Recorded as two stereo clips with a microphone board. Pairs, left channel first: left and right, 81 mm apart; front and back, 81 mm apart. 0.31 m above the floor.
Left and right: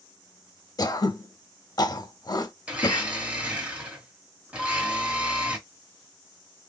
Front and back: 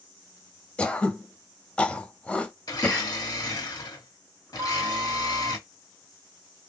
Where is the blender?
20° right, 1.3 m.